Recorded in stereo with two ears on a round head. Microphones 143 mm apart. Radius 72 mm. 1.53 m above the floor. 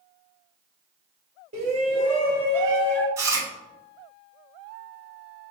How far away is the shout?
About 4.5 m.